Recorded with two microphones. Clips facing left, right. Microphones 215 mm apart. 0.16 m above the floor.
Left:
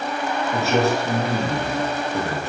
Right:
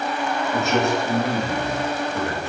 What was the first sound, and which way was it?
A man speaking, 35° left (ahead or behind).